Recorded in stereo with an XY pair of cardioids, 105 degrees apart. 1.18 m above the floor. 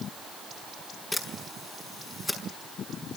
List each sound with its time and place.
1.1 s a camera shutter: 15° left, 5.5 m